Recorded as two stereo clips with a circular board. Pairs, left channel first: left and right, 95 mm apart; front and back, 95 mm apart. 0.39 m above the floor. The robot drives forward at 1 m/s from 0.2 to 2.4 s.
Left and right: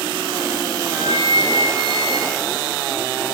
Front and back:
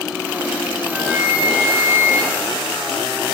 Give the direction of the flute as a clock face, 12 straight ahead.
3 o'clock.